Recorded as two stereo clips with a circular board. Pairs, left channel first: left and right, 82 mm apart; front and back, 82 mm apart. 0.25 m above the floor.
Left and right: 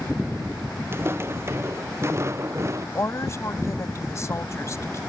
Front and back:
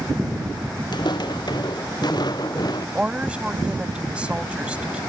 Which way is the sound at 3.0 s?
110° left.